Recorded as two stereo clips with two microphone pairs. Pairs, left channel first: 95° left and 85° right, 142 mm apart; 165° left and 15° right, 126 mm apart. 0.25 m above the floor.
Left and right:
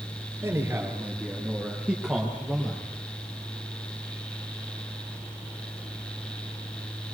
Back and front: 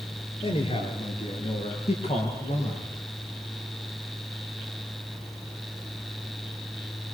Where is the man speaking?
155° right, 6 m; by 2.9 s 175° right, 6 m.